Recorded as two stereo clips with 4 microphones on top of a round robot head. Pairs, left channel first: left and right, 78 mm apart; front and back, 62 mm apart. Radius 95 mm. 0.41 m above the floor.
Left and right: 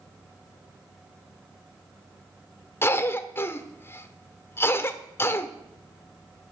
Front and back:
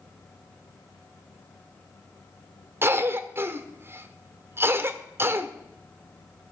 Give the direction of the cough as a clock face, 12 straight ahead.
7 o'clock.